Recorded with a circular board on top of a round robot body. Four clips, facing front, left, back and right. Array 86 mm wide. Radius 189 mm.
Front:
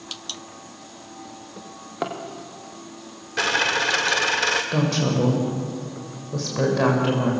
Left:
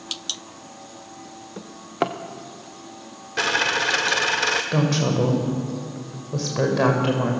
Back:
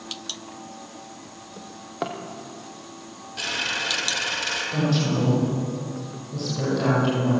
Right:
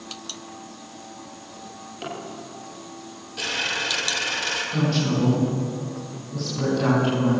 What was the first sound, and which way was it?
A drawer, 85° left.